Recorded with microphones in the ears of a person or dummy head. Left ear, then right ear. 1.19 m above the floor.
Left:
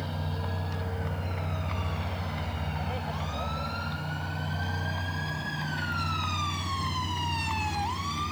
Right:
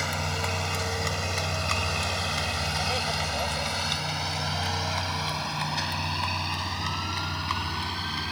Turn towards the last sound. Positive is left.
turn(degrees=-40)  # may be behind; listen again after turning